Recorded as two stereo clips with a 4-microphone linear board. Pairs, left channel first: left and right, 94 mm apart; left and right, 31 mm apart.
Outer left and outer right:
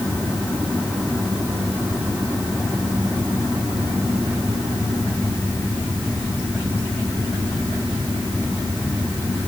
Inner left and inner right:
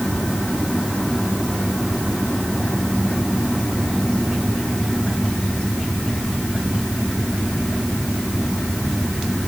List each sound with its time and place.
Only background noise.